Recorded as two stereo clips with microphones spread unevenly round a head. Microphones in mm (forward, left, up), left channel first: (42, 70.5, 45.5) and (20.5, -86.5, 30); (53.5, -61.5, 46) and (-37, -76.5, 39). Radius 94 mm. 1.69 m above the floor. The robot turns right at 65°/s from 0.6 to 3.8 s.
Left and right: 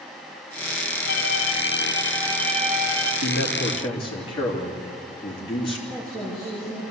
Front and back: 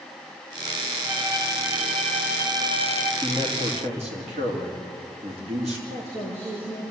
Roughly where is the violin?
Left.